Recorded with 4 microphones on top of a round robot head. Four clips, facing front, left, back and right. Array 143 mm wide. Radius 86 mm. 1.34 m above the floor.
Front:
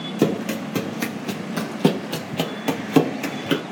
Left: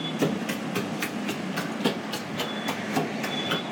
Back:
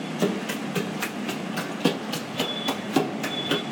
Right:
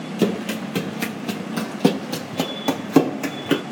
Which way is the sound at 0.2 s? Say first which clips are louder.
Right 6 dB, front 6 dB; 25° right.